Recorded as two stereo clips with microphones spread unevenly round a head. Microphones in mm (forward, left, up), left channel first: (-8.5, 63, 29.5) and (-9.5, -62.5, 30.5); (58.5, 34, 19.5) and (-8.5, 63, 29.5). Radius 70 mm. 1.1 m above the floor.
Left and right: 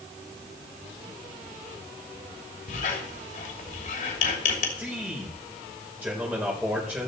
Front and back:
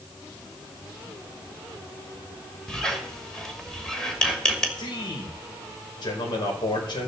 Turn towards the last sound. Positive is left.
turn(degrees=-10)